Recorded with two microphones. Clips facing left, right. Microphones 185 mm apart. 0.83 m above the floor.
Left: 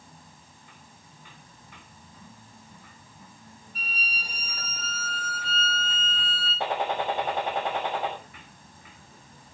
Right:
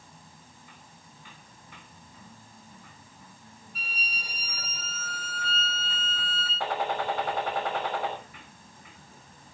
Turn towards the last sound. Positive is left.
turn(degrees=20)  # may be behind; listen again after turning